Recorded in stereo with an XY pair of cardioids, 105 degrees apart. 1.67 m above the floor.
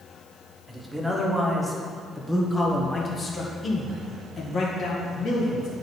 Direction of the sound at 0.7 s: 20° right.